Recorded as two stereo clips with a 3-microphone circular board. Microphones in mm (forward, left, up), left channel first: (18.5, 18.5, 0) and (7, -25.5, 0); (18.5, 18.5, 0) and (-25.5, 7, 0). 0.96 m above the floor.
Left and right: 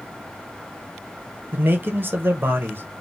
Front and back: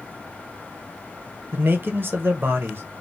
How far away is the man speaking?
About 0.6 m.